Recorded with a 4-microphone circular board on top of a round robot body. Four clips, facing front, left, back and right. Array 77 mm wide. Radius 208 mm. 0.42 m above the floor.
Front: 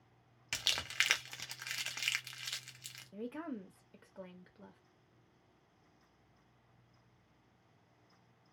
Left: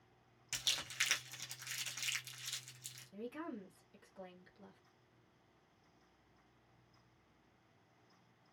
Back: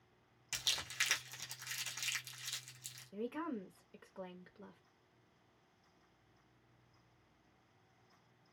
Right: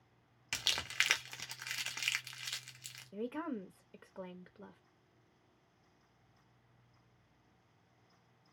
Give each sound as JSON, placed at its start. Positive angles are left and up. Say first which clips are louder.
{"t": 0.5, "sound": "crumpling", "louder": "right 6 dB, front 5 dB", "azimuth_deg": -50, "distance_m": 1.2}
{"t": 3.1, "sound": "a woman speaking", "louder": "right 6 dB, back 1 dB", "azimuth_deg": -90, "distance_m": 1.1}